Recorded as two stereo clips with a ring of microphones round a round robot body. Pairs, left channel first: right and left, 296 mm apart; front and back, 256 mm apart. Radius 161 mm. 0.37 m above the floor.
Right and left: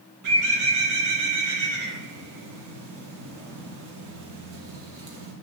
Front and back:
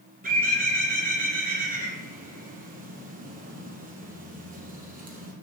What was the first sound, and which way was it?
A bird, 120° left.